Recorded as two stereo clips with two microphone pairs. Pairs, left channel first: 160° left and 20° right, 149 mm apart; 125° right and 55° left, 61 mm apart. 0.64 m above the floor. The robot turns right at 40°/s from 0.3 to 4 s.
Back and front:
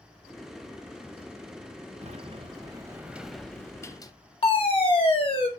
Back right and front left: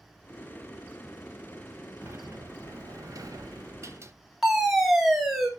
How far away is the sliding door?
About 0.9 m.